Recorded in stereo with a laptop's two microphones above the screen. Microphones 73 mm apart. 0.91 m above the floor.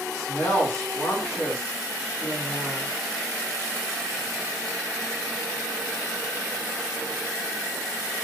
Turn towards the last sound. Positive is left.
turn(degrees=55)  # may be behind; listen again after turning